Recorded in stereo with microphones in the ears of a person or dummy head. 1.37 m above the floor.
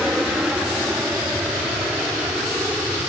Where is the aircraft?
5° right (ahead or behind).